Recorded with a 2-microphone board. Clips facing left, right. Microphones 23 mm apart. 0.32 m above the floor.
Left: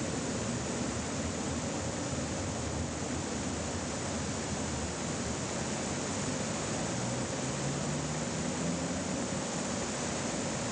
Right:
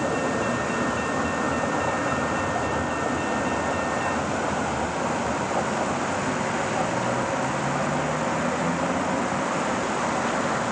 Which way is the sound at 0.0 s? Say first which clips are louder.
Right 11 dB; 60° right (ahead or behind).